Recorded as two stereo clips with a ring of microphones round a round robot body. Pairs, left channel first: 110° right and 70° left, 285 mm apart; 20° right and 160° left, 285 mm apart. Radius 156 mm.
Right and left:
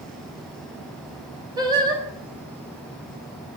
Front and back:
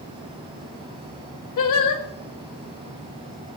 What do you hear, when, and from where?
1.6 s singing: 10° right, 1.9 m